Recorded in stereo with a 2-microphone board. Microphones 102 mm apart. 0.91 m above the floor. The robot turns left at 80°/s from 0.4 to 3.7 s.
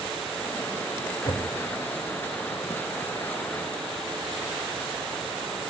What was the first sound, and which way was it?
Knocking, 50° left (ahead or behind).